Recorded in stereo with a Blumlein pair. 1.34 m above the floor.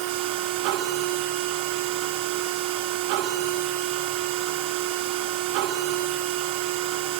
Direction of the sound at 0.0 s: 45° right.